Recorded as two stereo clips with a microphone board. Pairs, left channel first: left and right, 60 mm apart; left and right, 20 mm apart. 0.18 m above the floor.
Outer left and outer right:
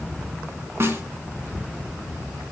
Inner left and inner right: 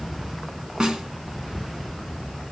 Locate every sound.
0.8 s a snare drum: 45° right (ahead or behind), 1.9 m